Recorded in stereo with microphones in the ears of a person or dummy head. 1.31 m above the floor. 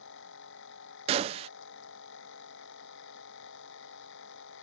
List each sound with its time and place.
0.0 s a machine running: 70° left (ahead or behind)
1.1 s a gunshot: 35° right (ahead or behind)